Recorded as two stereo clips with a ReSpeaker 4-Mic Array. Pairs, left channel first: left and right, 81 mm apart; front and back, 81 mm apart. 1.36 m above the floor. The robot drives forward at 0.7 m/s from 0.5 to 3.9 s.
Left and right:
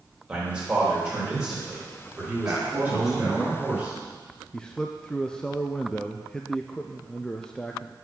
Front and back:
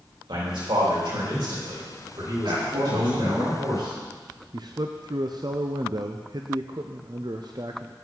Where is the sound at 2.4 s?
155° right, 3 m; by 4.1 s 160° right, 4 m.